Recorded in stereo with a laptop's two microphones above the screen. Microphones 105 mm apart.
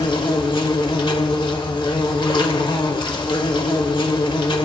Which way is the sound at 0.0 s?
55° left (ahead or behind).